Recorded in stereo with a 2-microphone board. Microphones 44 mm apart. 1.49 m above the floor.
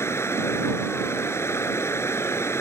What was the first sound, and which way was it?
Running water, 85° left.